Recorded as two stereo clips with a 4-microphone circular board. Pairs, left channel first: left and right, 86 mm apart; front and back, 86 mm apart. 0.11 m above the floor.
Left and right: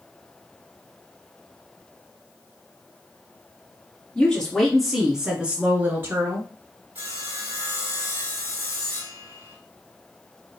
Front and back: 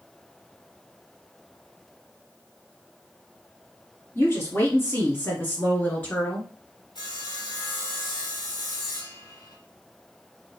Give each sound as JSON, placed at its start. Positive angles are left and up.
{"t": 4.2, "sound": "a woman speaking", "azimuth_deg": 25, "distance_m": 1.9}
{"t": 7.0, "sound": "sawing", "azimuth_deg": -25, "distance_m": 2.5}